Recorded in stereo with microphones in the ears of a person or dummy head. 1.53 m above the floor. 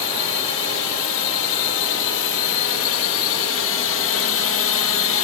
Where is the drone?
65° left (ahead or behind).